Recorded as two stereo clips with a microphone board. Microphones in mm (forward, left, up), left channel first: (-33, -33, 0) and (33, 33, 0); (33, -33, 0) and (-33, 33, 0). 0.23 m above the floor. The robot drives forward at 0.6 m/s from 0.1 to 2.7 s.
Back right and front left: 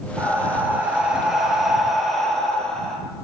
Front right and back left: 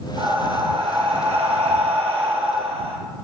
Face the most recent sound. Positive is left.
turn(degrees=145)